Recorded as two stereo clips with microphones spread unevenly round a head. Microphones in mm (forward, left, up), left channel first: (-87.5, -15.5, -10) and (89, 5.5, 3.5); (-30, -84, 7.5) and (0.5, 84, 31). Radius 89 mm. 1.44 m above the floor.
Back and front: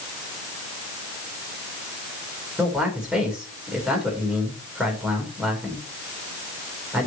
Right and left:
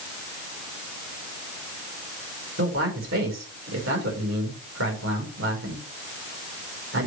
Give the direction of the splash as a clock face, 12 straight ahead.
I don't hear a splash.